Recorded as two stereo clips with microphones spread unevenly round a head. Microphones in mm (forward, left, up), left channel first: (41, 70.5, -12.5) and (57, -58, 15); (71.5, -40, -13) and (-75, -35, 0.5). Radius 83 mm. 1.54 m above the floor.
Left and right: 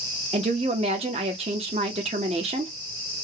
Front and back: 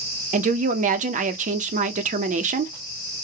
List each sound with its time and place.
0.3 s a woman speaking: 145° right, 0.5 m